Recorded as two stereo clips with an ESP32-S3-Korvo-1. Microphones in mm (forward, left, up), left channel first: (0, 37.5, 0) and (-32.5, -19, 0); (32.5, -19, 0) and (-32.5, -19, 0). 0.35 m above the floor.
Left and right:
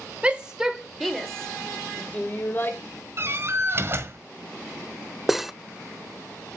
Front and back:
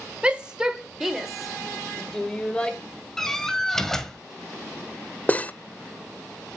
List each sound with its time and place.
0.2 s a shout: 145° right, 1.3 m; by 2.8 s 60° left, 1.5 m
3.2 s a door slam: 80° right, 1.6 m
5.3 s cutlery clinking: 40° right, 0.5 m